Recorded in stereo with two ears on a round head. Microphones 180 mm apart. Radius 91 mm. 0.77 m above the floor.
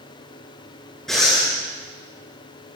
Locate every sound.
1.1 s breathing: centre (ahead or behind), 7 m